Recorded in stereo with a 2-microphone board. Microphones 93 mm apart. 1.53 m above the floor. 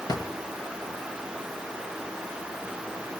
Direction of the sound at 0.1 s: 45° left (ahead or behind).